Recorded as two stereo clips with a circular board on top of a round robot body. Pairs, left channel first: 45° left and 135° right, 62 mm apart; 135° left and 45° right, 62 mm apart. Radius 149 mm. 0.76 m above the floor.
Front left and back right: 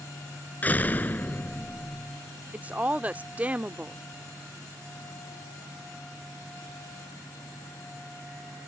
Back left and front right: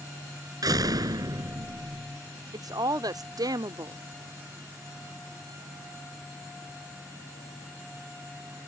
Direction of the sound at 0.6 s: 20° right.